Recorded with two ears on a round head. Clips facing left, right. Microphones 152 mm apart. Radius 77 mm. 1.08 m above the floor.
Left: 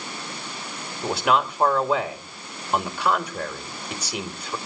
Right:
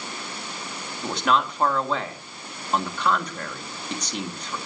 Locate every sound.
1.0 s a man speaking: 5° left (ahead or behind), 2 m